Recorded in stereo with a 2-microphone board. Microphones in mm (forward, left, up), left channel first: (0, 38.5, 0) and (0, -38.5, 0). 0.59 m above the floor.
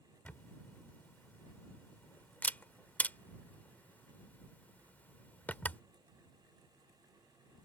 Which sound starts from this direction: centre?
A camera shutter, at 0.2 s.